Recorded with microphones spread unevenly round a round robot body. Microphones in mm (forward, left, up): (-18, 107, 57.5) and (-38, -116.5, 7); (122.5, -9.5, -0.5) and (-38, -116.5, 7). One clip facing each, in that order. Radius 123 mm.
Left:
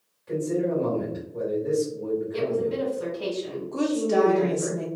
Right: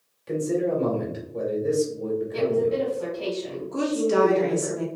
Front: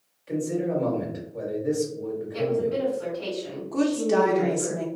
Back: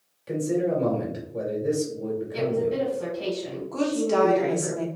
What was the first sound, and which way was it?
A man speaking, 110° right.